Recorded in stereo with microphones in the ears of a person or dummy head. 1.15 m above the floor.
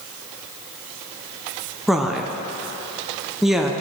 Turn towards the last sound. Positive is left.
turn(degrees=-5)  # may be behind; listen again after turning